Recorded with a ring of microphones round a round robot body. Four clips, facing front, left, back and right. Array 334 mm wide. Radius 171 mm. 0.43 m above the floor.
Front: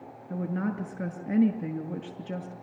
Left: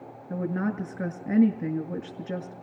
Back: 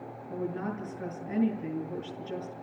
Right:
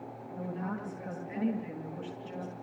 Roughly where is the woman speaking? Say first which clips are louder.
Left 9 dB, front 3 dB; ahead left.